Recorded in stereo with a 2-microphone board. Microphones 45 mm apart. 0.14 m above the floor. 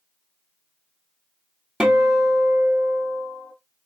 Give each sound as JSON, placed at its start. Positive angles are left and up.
{"t": 1.8, "sound": "a guitar", "side_deg": -20, "distance_m": 0.9}